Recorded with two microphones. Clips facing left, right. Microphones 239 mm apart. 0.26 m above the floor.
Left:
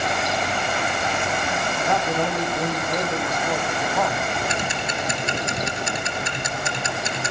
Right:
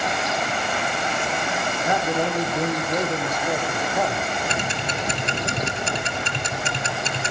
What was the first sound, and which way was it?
A man speaking, 10° right (ahead or behind).